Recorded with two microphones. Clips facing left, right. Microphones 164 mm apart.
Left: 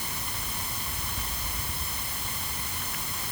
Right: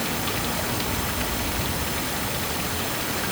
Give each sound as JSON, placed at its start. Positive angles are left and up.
{"t": 0.0, "sound": "running water", "side_deg": -70}